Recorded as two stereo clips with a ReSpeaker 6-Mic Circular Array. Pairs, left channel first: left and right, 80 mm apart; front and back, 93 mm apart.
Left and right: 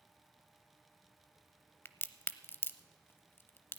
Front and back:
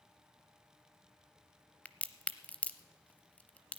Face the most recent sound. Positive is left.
turn(degrees=60)